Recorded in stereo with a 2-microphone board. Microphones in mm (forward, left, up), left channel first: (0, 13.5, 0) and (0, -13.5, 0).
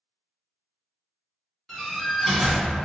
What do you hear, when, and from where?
1.7 s a door slam: 10° left (ahead or behind), 1.4 m